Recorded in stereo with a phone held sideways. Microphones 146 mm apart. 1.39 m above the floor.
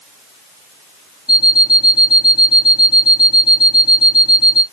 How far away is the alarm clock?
About 1.0 m.